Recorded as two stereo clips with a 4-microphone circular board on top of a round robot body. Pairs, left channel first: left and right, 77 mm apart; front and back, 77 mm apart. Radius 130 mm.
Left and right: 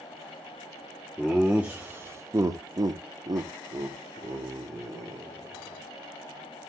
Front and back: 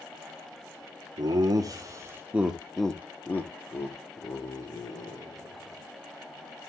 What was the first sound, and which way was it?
Laughter, 175° right.